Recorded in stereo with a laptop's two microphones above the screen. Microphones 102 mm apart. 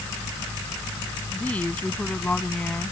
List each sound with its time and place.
1.3 s a woman speaking: 15° left (ahead or behind)